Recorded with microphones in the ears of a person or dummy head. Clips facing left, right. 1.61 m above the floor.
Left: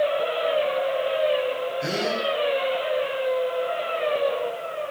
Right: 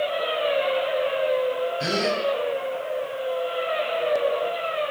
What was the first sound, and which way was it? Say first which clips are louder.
A gasp: right 1 dB; 60° right (ahead or behind).